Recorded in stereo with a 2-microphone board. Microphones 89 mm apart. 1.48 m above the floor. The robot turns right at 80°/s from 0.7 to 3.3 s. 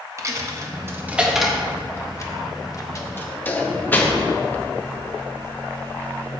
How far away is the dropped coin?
About 0.9 m.